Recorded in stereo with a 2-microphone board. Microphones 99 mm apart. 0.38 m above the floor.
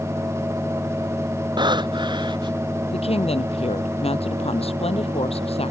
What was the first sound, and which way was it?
Breathing, 50° right (ahead or behind).